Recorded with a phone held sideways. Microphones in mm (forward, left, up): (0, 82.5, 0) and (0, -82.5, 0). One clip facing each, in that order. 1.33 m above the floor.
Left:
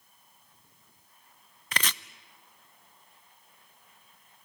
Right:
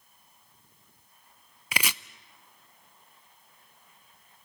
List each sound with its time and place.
1.7 s chopping: 10° right (ahead or behind), 0.5 m